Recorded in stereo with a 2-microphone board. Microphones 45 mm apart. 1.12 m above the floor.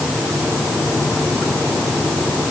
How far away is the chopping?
I don't hear chopping.